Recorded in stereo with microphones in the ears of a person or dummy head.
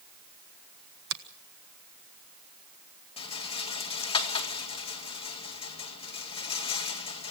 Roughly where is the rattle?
Left.